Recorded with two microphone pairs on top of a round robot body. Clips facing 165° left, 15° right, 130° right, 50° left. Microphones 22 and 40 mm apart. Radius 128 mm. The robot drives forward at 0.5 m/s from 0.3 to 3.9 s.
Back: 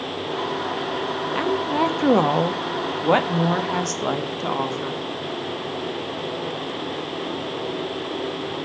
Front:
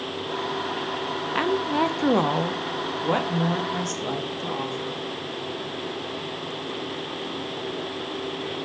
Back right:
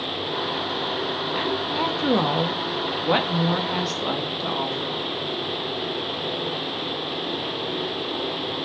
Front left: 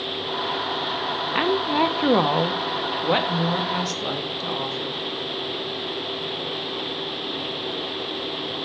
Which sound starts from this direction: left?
A woman speaking, at 1.4 s.